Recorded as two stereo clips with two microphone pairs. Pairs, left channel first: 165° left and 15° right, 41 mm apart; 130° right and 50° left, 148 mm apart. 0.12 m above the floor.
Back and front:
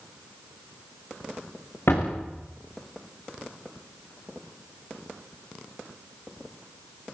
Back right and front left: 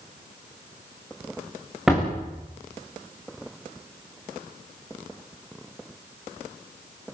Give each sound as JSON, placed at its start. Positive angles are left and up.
{"t": 1.9, "sound": "a door slam", "azimuth_deg": 135, "distance_m": 8.0}